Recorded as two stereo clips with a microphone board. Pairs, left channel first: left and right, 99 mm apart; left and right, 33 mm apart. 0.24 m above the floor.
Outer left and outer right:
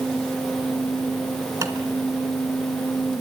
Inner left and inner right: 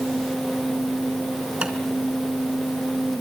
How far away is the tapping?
About 3 m.